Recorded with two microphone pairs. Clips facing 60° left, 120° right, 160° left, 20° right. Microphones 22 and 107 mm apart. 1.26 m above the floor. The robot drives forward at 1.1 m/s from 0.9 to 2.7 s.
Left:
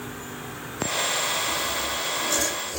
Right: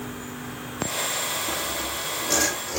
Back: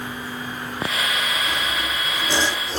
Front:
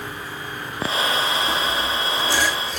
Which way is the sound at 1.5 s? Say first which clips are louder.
Left 2 dB, front 3 dB; 95° right.